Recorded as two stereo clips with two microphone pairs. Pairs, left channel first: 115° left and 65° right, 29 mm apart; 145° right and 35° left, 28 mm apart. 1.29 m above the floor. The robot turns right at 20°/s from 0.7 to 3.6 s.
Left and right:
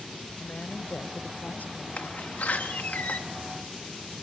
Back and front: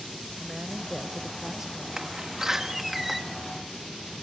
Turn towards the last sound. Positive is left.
turn(degrees=130)